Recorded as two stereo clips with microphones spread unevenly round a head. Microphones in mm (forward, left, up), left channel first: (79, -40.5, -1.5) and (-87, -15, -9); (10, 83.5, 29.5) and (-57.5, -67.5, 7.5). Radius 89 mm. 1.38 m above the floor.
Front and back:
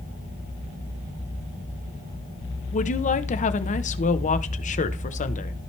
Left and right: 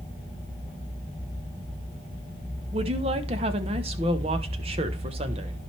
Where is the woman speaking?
55° right, 1.1 m.